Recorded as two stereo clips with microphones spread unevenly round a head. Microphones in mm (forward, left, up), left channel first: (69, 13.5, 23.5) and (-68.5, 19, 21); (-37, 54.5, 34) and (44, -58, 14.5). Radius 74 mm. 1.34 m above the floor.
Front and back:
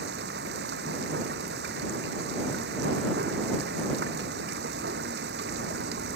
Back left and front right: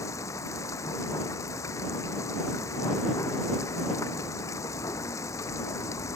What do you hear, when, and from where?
0.0 s running water: 165° right